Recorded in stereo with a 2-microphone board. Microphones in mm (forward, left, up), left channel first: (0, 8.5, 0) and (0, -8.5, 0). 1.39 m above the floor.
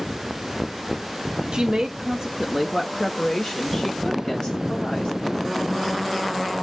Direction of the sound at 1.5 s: 55° right (ahead or behind).